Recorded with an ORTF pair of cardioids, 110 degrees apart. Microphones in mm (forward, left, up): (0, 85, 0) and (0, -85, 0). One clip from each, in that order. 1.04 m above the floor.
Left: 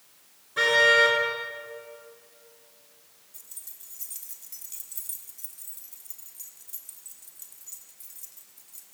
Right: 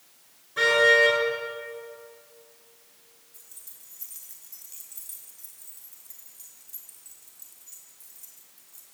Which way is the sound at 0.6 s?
10° left.